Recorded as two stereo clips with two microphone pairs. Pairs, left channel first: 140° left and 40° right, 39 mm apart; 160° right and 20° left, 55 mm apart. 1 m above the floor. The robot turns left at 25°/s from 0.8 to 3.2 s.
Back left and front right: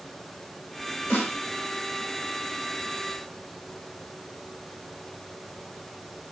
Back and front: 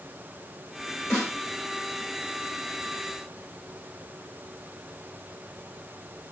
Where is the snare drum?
100° left, 2.5 m; by 1.4 s 95° left, 2.5 m.